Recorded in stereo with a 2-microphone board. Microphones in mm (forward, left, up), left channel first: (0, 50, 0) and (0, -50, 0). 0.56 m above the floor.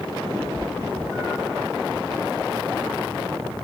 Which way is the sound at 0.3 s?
20° right (ahead or behind).